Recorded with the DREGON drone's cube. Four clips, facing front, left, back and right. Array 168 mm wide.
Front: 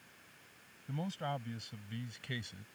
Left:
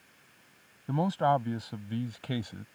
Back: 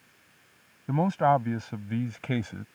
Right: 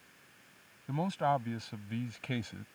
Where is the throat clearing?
No throat clearing in this recording.